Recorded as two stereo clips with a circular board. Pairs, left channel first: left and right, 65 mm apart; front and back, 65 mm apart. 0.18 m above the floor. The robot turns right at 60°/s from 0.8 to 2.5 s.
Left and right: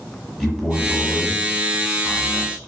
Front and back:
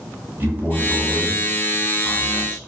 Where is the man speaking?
Straight behind, 1.3 m; by 2.7 s 80° right, 1.3 m.